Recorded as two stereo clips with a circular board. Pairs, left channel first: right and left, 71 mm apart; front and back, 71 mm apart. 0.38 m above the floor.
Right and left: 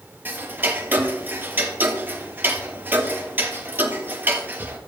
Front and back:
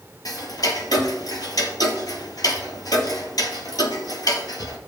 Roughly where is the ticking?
Ahead left.